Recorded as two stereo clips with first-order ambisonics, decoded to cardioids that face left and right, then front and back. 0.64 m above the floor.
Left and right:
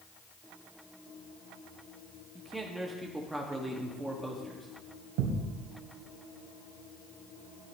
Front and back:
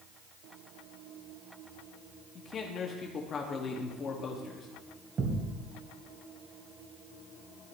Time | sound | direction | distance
2.4 | a man speaking | 10° right | 1.1 m
5.2 | a thud | 115° right | 2.0 m